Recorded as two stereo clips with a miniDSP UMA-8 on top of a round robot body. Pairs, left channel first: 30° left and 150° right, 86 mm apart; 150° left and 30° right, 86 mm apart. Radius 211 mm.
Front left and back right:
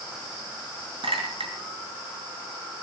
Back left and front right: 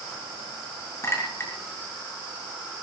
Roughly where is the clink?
Behind right.